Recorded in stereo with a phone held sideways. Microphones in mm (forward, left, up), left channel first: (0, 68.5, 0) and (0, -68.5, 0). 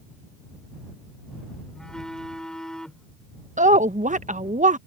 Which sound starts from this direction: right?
A woman speaking, at 3.6 s.